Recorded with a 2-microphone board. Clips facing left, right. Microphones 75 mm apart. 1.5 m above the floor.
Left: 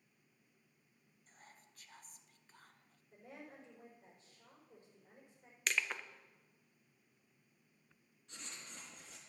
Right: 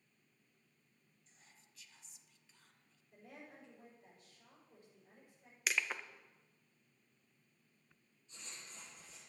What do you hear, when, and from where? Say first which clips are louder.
1.3 s whispering: left 8 dB; 45° left (ahead or behind), 0.6 m
3.1 s a woman speaking: left 2 dB; 20° left (ahead or behind), 5.5 m
5.7 s crushing: even; 5° right (ahead or behind), 0.6 m
8.3 s writing: left 2 dB; 75° left (ahead or behind), 3 m